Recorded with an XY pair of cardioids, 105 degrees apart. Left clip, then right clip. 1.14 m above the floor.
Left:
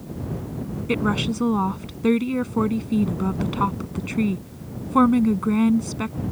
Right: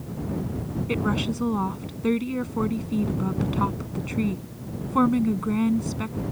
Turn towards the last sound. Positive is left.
turn(degrees=30)